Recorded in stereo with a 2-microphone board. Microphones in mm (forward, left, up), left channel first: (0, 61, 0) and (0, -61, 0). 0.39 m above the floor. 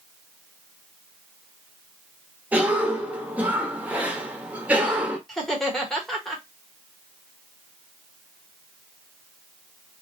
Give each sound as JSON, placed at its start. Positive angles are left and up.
{"t": 2.5, "sound": "a cough", "side_deg": -10, "distance_m": 0.8}
{"t": 5.3, "sound": "laughter", "side_deg": 0, "distance_m": 1.0}